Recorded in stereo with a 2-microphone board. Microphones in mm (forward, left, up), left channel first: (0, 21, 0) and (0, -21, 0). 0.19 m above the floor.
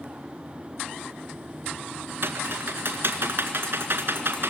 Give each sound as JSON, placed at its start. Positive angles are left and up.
{"t": 2.2, "sound": "typing on a keyboard", "side_deg": -60, "distance_m": 1.8}